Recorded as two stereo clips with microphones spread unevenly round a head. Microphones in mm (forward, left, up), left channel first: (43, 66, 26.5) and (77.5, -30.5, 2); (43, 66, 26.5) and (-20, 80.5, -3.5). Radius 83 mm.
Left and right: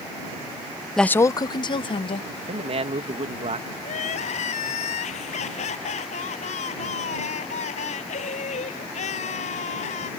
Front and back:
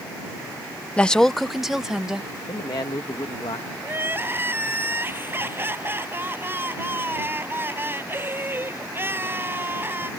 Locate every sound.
1.0 s a woman speaking: 30° left; by 2.3 s 80° left
2.5 s a man speaking: 45° right
3.8 s crying: 110° left